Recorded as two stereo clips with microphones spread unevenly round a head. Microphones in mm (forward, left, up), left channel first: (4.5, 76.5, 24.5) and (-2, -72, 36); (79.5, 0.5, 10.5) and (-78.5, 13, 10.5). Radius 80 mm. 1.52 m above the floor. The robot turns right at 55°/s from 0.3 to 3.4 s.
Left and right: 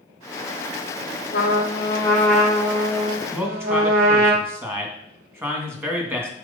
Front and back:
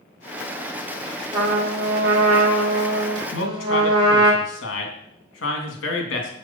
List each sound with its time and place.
1.3 s a trumpet: 120° left, 2.5 m; by 4.3 s 125° right, 2.5 m
3.3 s a man speaking: 20° right, 3 m; by 6.3 s 15° right, 3 m